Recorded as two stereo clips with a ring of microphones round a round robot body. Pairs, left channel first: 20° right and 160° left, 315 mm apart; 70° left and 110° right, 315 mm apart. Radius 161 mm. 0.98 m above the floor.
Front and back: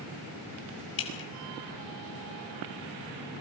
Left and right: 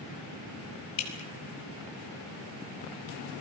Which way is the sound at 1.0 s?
30° left.